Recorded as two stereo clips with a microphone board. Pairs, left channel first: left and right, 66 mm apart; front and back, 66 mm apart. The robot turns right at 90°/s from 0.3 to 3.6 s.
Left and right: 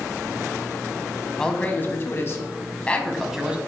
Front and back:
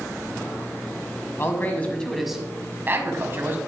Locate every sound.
1.4 s a man speaking: 15° left, 1.4 m; by 3.6 s 150° right, 1.4 m